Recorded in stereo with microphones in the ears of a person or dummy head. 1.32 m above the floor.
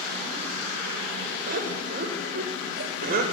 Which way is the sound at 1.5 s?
50° right (ahead or behind).